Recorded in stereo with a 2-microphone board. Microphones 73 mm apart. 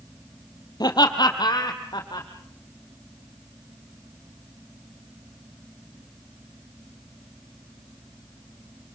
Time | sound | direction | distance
0.8 | laughter | 65° left (ahead or behind) | 3 m